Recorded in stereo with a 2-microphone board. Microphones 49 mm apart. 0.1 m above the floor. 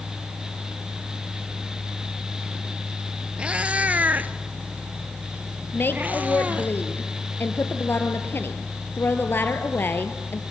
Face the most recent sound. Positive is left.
turn(degrees=50)  # may be behind; listen again after turning